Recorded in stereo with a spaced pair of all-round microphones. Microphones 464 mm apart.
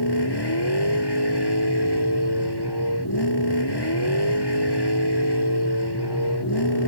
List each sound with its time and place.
0.0 s a vehicle: 55° left (ahead or behind)